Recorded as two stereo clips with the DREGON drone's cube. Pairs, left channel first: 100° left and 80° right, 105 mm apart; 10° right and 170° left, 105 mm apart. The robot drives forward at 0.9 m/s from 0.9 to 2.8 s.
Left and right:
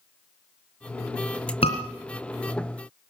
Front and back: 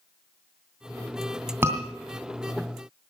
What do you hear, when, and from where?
1.6 s a scream: 105° left, 2.5 m; by 1.8 s 110° left, 2.5 m